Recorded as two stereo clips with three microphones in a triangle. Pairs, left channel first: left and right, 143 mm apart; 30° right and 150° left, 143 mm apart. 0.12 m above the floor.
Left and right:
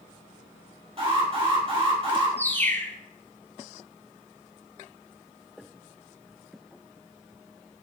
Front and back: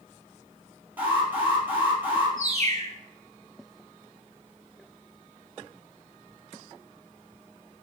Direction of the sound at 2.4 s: 160° left.